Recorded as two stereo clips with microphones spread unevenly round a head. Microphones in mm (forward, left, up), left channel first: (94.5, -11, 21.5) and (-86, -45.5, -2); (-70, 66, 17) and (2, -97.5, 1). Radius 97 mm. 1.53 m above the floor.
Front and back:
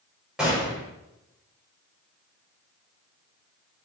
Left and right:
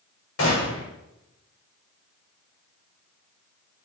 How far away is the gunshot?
About 6 m.